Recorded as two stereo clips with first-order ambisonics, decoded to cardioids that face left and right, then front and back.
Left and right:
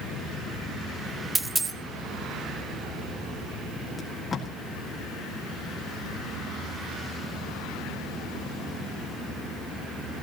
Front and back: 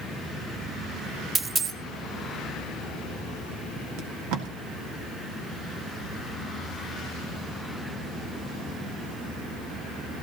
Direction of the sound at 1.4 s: 145° right.